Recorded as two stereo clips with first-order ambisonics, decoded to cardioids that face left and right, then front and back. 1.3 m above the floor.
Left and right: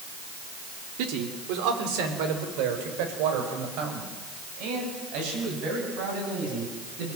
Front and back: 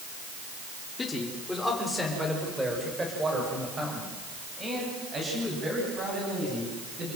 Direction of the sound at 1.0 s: 75° right.